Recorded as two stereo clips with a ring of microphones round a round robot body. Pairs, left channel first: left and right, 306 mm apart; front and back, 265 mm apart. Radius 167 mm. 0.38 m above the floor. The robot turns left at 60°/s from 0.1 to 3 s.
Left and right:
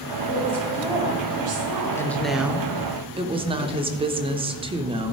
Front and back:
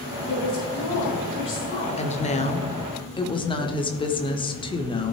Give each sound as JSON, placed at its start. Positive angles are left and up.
{"t": 0.3, "sound": "a woman speaking", "azimuth_deg": 35, "distance_m": 3.0}
{"t": 2.0, "sound": "a woman speaking", "azimuth_deg": 20, "distance_m": 1.1}